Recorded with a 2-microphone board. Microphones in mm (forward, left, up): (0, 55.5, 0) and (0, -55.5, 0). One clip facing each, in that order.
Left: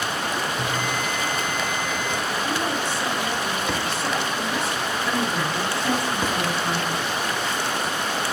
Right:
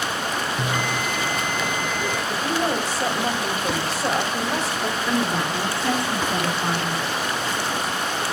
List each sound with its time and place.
0.6 s a bell: 60° right (ahead or behind), 1.2 m
2.3 s a woman speaking: 40° right (ahead or behind), 2 m
5.1 s a woman speaking: 25° right (ahead or behind), 5 m